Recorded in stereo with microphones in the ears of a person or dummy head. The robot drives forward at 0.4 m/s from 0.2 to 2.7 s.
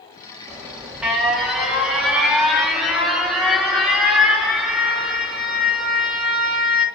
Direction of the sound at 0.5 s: 15° right (ahead or behind).